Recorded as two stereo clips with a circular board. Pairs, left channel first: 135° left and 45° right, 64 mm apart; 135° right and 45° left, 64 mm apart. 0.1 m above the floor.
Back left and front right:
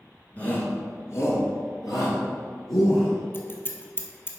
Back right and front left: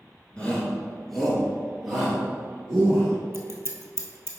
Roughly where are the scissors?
Left.